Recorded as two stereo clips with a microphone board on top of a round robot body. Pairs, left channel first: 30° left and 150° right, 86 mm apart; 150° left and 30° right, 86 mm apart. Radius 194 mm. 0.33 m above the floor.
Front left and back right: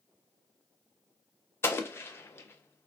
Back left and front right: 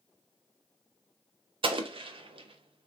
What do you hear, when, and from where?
1.6 s an explosion: 30° right, 0.6 m